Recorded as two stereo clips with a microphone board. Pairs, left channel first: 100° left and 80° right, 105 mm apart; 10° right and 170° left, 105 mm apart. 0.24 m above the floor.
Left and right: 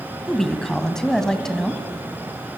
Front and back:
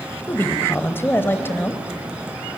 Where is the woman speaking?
25° left, 1.3 m.